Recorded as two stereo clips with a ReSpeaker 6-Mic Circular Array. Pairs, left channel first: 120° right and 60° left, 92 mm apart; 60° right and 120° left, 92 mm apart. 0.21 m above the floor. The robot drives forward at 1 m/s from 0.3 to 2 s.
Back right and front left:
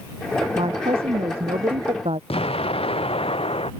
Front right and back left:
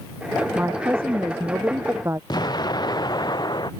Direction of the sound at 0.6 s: 50° left.